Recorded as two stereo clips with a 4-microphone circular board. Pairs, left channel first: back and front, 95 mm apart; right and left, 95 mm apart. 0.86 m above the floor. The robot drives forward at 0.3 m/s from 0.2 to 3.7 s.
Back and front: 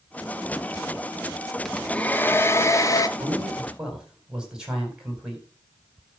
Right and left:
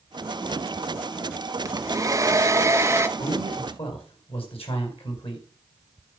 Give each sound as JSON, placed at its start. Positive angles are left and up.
{"t": 1.6, "sound": "a hair dryer", "azimuth_deg": 100, "distance_m": 0.6}
{"t": 3.2, "sound": "a man speaking", "azimuth_deg": -80, "distance_m": 4.5}